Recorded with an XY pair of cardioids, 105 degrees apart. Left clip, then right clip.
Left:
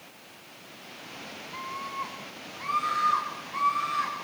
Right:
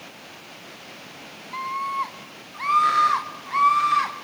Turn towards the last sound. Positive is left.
turn(degrees=-70)